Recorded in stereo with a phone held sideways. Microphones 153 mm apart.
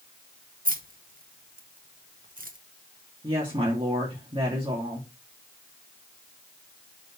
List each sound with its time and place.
0.7 s keys jangling: 65° right (ahead or behind), 1.3 m
3.2 s a woman speaking: 35° right (ahead or behind), 2.5 m